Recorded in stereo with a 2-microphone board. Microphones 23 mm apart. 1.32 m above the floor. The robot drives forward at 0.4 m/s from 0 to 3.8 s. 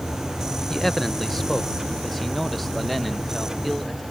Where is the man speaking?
10° left (ahead or behind); by 4.0 s 5° left (ahead or behind).